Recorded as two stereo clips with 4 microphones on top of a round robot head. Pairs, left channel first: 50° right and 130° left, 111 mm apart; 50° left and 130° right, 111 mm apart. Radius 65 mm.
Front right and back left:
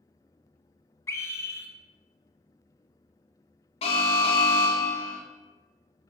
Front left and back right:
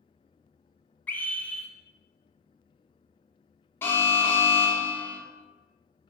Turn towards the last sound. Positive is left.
turn(degrees=-20)